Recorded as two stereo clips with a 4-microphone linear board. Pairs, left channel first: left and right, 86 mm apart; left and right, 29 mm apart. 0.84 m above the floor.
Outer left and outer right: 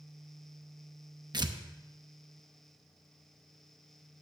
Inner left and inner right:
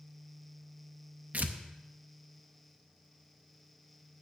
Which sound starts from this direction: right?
Tearing paper, at 1.3 s.